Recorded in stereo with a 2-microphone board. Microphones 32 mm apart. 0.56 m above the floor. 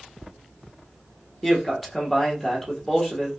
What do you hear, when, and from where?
1.4 s a woman speaking: 5° left (ahead or behind), 1.4 m